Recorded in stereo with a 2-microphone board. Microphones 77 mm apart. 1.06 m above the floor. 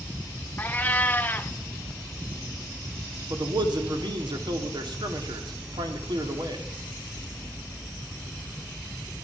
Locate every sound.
0.6 s a cat meowing: 25° left (ahead or behind), 0.7 m
3.3 s a man speaking: 70° right (ahead or behind), 2 m